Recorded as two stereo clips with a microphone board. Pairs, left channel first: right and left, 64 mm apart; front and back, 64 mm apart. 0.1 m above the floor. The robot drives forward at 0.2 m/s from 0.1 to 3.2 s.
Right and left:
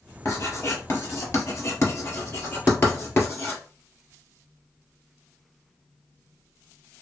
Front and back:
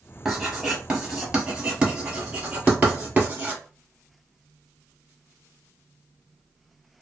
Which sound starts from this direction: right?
Writing, at 0.2 s.